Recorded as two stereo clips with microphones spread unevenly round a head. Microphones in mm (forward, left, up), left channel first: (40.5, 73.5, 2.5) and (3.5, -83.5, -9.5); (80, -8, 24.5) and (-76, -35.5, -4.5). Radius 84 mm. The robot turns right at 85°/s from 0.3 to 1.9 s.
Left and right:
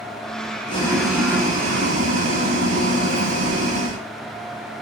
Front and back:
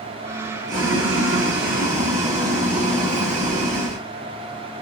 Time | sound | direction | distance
0.7 | boiling | 135° left | 8.5 m